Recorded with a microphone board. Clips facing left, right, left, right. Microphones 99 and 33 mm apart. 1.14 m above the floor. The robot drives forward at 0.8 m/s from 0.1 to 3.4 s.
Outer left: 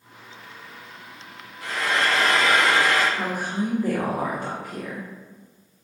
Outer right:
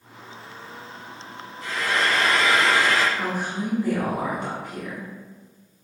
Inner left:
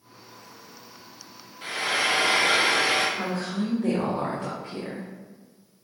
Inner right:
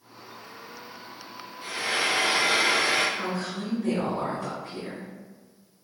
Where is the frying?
60° left (ahead or behind), 0.9 m; by 3.0 s 50° left (ahead or behind), 1.1 m.